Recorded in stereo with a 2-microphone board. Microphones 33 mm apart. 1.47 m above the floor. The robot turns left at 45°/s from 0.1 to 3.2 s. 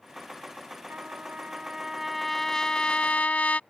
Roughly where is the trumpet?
Behind right.